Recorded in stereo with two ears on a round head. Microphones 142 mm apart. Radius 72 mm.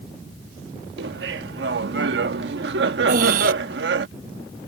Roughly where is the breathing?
Right.